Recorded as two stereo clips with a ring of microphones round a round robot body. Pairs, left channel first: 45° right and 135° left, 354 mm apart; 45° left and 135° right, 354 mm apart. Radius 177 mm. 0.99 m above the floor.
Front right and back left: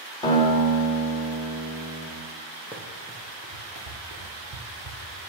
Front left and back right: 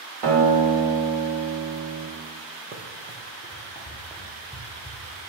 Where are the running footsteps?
150° right, 1.0 m; by 5.2 s 125° left, 1.8 m.